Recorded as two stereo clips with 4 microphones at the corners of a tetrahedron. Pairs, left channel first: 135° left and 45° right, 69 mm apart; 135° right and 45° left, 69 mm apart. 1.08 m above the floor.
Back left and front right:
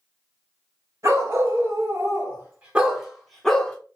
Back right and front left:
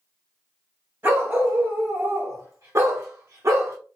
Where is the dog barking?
10° right, 1.5 m; by 3.8 s 70° left, 0.8 m.